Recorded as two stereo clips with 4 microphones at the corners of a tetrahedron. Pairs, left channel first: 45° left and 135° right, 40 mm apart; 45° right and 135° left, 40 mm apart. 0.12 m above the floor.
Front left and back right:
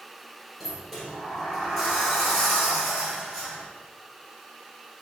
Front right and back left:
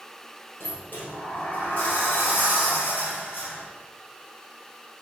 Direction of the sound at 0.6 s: 40° right.